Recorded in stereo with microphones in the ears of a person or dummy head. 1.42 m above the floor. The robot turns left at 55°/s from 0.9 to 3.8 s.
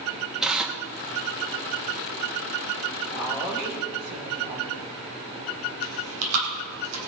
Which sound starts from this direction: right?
Chewing, at 5.8 s.